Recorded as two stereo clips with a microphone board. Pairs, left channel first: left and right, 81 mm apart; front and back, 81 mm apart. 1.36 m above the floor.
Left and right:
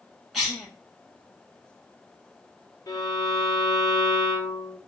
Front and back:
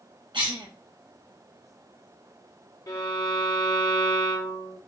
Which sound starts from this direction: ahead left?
A violin, at 2.9 s.